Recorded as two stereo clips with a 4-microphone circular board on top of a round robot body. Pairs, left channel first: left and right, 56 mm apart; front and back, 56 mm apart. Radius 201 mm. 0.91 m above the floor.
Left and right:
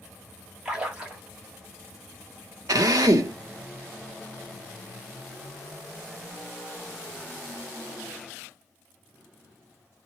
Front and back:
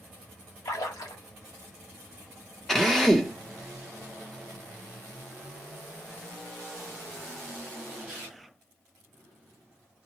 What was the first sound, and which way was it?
A splash, 15° right.